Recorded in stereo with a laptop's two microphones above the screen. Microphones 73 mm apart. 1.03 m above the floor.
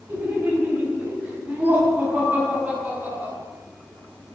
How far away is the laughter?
About 5 m.